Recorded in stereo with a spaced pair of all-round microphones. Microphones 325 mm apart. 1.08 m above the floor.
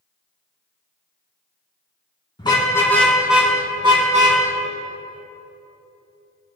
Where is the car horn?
15° left (ahead or behind), 4 m; by 4.4 s 25° right (ahead or behind), 3.5 m.